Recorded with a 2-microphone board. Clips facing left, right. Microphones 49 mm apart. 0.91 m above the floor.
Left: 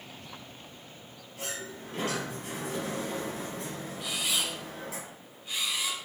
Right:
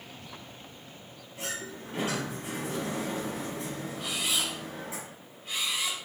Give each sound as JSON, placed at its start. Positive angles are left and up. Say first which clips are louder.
{"t": 1.4, "sound": "a sliding door", "louder": "right 1 dB", "side_deg": -20, "distance_m": 3.0}
{"t": 4.0, "sound": "a camera shutter", "louder": "even", "side_deg": -45, "distance_m": 2.5}